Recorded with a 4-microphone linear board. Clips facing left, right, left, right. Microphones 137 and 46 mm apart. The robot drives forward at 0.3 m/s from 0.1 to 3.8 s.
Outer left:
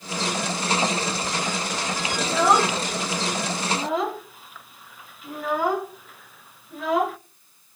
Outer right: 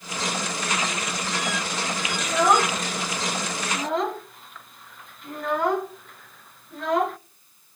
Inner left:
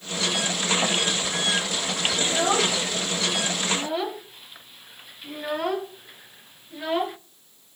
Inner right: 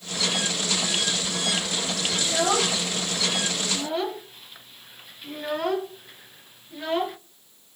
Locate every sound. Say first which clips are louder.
2.2 s a child speaking: outer left 1 dB, even; centre (ahead or behind), 0.9 m; by 7.2 s 5° left (ahead or behind), 0.5 m